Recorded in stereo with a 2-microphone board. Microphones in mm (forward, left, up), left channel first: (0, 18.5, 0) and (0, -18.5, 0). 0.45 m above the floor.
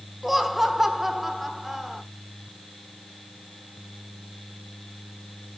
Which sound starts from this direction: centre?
Laughter, at 0.2 s.